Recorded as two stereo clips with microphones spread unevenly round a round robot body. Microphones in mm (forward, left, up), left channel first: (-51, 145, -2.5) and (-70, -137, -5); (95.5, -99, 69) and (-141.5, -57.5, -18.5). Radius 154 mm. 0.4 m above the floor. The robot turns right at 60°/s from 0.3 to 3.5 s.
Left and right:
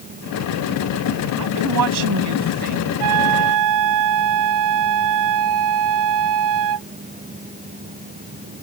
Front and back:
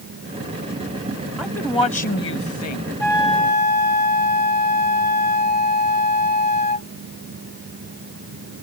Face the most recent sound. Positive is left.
turn(degrees=-65)